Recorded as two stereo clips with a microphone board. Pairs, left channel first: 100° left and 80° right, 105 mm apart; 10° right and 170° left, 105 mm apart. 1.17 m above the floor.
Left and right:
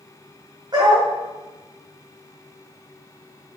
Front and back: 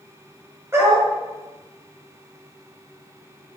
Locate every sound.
0.7 s a dog barking: 125° right, 2.5 m